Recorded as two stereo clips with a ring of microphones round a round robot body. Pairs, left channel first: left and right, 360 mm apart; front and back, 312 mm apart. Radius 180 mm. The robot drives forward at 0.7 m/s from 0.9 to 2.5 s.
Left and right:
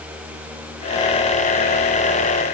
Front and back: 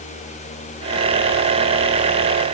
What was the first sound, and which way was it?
Only background noise.